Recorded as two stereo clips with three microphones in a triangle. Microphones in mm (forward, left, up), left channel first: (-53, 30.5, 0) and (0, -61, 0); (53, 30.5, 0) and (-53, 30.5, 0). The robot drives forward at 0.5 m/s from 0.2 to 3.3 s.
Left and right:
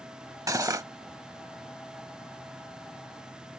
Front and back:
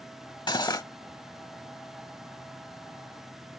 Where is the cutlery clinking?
20° right; by 0.8 s 25° right.